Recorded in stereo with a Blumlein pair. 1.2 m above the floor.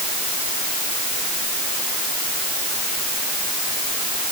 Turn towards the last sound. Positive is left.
No sound to turn to.